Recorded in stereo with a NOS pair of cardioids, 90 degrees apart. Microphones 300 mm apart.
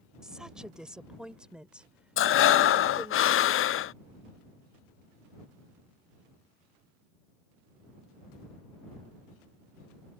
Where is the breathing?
50° left.